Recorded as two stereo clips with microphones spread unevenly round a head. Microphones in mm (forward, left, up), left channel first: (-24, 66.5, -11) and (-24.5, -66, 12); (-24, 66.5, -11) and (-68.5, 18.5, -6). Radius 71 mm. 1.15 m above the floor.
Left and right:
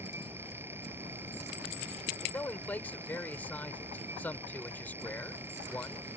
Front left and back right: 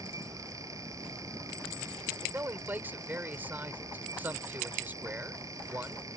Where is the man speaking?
170° left.